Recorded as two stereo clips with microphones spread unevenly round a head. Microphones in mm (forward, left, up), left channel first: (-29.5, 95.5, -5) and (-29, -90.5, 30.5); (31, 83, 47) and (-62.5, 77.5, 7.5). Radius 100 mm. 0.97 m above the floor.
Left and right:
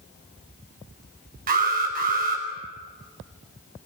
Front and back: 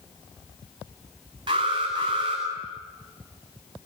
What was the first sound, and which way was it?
An alarm, 135° right.